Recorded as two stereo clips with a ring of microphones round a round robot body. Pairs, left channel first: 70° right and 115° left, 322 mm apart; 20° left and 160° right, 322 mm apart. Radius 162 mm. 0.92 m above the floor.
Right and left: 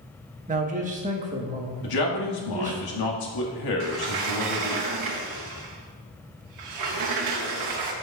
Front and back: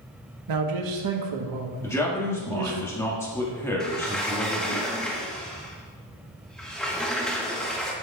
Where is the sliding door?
110° left, 1.1 m.